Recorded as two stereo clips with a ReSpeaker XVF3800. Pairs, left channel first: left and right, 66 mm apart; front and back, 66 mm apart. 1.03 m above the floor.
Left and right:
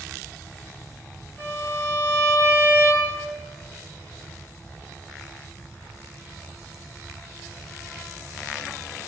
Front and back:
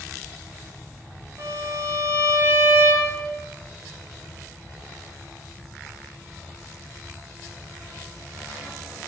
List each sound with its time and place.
1.4 s a violin: 155° left, 1.2 m